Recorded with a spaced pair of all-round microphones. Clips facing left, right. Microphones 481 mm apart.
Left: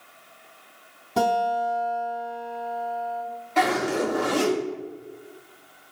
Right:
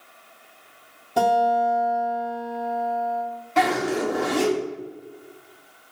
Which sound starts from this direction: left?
A guitar, at 1.2 s.